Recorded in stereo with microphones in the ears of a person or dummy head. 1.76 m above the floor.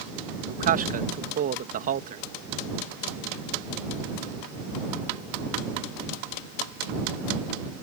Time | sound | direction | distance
0.5 | a man speaking | 40° right (ahead or behind) | ?